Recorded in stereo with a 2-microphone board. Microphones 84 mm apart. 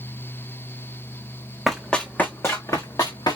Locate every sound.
1.7 s running footsteps: centre (ahead or behind), 1.3 m; by 3.4 s 55° left (ahead or behind), 1.9 m